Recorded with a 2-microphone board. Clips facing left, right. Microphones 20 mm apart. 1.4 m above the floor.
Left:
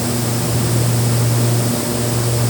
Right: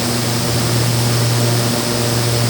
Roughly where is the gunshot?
No gunshot in this recording.